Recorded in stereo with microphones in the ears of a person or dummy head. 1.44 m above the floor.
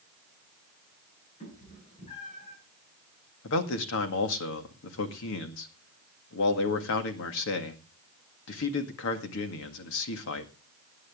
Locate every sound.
1.4 s a cat meowing: 30° left (ahead or behind), 7 m; by 2.6 s 20° left (ahead or behind), 6.5 m
3.4 s a man speaking: 65° left (ahead or behind), 1.8 m